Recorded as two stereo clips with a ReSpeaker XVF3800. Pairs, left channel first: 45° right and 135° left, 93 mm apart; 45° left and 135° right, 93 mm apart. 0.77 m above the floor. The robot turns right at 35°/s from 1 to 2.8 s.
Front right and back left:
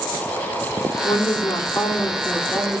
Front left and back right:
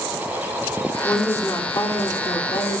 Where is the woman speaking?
20° right, 1.8 m; by 2.8 s 40° left, 1.8 m.